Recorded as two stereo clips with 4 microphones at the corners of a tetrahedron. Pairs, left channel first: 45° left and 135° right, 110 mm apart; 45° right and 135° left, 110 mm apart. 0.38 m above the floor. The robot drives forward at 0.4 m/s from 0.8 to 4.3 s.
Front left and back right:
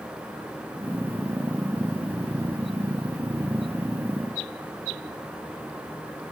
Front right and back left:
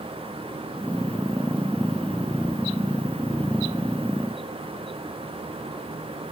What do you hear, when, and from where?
Only background noise.